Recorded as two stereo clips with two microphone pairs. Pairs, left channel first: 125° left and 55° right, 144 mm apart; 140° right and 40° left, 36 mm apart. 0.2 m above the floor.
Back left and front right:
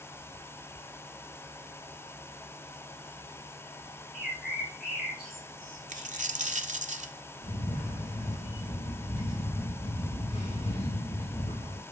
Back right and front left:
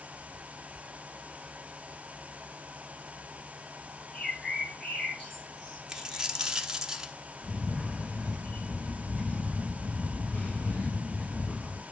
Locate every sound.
4.1 s a bird: 135° left, 6 m
5.9 s a dropped coin: 30° right, 0.8 m
7.4 s a camera shutter: 170° left, 4 m